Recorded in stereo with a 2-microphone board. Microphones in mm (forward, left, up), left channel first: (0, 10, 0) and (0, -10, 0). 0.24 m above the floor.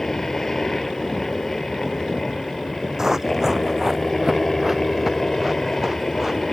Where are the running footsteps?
35° right (ahead or behind); by 6.4 s 20° right (ahead or behind).